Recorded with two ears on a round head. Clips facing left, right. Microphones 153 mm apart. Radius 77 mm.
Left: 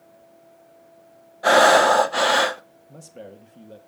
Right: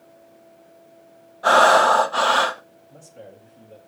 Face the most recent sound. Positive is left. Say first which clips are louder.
# left 3 dB
turn(degrees=65)  # may be behind; listen again after turning